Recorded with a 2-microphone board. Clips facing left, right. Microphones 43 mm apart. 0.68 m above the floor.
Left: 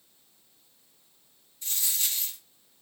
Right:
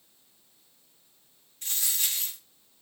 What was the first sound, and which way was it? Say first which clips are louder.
A dropped coin: right 1 dB; 60° right (ahead or behind).